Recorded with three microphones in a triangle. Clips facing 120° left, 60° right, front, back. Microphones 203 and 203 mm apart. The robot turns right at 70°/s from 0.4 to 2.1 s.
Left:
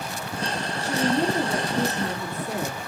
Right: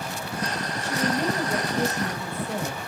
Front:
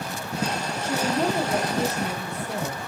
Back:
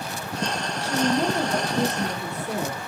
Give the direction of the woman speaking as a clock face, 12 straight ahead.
10 o'clock.